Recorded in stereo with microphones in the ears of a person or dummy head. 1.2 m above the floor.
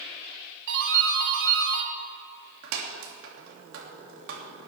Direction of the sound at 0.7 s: 70° right (ahead or behind).